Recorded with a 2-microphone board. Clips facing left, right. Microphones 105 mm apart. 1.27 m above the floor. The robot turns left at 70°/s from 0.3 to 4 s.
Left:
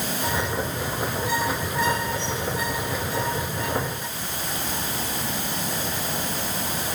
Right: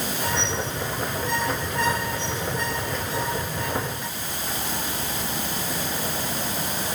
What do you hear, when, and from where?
Only background noise.